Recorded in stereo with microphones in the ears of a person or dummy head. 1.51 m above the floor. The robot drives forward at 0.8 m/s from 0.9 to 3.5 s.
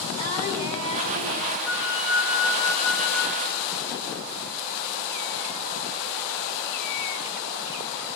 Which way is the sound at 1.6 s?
5° right (ahead or behind).